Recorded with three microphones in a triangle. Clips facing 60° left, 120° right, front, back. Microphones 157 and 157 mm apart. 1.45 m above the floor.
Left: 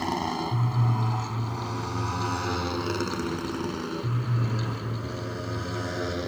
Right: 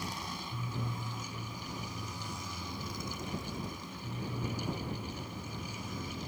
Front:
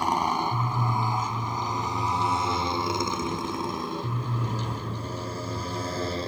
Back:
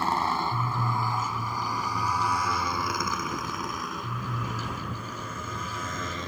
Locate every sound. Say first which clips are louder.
0.0 s a motorcycle: left 14 dB, front 2 dB; 75° left; by 6.3 s 55° left